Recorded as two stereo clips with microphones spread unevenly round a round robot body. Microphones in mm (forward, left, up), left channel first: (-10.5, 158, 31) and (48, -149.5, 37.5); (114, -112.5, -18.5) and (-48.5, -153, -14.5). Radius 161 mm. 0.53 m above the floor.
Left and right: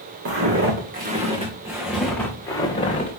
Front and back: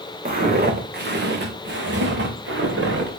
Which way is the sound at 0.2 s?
130° right.